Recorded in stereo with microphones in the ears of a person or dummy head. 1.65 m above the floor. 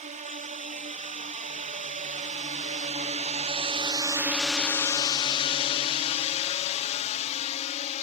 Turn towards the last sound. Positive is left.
turn(degrees=35)  # may be behind; listen again after turning